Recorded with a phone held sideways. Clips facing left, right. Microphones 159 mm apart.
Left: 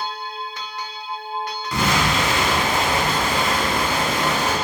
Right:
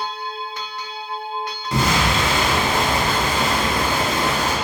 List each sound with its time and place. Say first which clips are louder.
1.7 s an explosion: right 1 dB; 25° right (ahead or behind), 0.9 m